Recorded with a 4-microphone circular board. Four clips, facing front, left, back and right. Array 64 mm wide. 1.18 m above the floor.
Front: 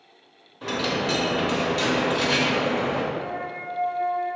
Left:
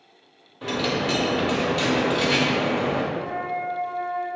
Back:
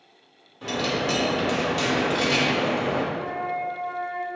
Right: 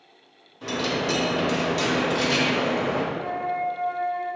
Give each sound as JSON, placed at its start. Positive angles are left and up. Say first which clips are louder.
{"t": 0.6, "sound": "a dropped coin", "louder": "left 1 dB, even", "azimuth_deg": 75, "distance_m": 0.8}
{"t": 3.1, "sound": "a flute", "louder": "right 1 dB, back 2 dB", "azimuth_deg": -140, "distance_m": 1.8}